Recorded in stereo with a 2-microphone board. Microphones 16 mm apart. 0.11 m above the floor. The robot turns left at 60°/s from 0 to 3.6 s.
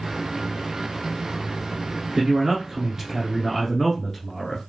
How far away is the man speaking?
About 1.3 m.